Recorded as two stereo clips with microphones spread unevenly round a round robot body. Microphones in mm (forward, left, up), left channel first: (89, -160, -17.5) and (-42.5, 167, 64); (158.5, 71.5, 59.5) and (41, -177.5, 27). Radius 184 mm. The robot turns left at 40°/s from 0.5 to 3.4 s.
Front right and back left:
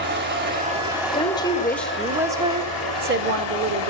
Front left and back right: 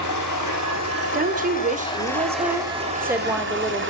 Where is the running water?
45° left, 10 m; by 3.9 s 70° right, 10 m.